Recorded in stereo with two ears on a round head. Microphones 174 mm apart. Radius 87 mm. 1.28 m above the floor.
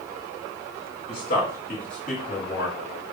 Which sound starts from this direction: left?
A man speaking, at 1.1 s.